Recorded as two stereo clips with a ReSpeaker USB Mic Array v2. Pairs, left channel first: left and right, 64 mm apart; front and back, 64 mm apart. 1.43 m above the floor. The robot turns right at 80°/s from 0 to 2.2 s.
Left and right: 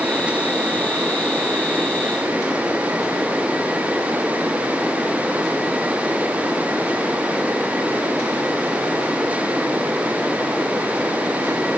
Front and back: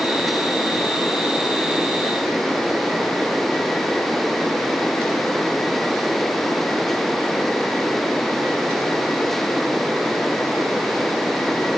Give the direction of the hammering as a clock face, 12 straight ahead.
No hammering in this recording.